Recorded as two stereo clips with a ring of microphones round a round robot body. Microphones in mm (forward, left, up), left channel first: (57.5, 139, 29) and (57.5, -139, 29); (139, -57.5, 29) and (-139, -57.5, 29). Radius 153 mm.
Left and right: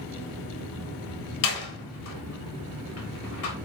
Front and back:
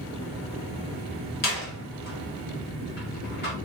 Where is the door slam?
60° left, 1.0 m.